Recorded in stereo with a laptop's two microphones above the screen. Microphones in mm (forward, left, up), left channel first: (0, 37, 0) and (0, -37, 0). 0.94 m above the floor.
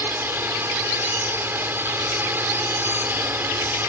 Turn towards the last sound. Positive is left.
turn(degrees=-30)  # may be behind; listen again after turning